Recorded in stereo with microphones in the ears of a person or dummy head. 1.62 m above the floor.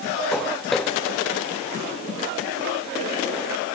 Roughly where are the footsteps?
Centre.